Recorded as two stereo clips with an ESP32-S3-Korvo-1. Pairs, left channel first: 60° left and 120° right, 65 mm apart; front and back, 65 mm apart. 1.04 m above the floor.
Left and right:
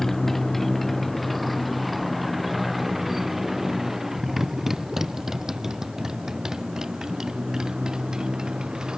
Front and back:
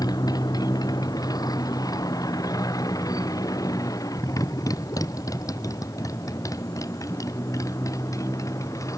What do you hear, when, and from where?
0.0 s a motorcycle: 25° right; by 9.0 s 40° right